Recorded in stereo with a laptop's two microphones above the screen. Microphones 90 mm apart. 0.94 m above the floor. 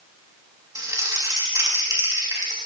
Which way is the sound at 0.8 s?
35° right (ahead or behind).